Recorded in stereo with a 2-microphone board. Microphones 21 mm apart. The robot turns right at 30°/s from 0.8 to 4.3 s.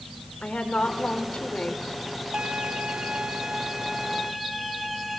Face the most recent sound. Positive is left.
turn(degrees=-5)